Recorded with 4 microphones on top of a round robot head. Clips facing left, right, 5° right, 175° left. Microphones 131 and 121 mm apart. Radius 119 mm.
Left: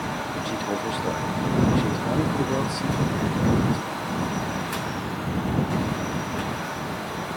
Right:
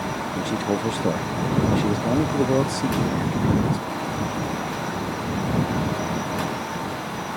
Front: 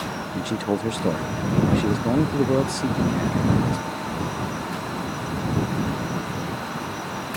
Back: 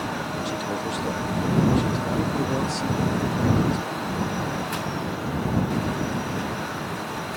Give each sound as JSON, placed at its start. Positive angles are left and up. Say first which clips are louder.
{"t": 0.3, "sound": "a man speaking", "louder": "right 5 dB, front 8 dB", "azimuth_deg": -40}